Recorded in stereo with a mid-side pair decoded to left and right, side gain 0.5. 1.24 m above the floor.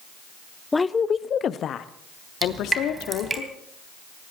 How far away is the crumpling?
No crumpling in this recording.